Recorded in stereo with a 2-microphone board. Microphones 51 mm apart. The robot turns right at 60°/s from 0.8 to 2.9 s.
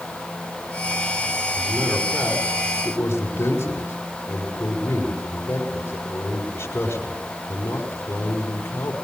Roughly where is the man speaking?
Ahead right.